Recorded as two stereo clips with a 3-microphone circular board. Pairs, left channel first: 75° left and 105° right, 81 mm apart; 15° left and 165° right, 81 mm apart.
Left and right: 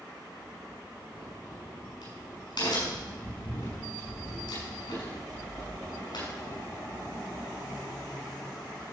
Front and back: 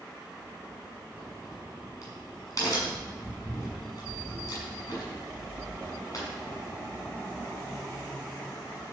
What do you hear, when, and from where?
1.1 s a crack: 60° left, 5.5 m